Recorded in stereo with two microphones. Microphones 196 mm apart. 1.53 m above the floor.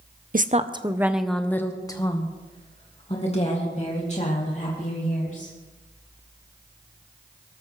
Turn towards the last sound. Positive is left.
turn(degrees=40)  # may be behind; listen again after turning